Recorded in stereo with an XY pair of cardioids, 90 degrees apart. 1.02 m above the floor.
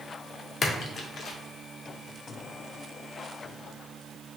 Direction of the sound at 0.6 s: 60° left.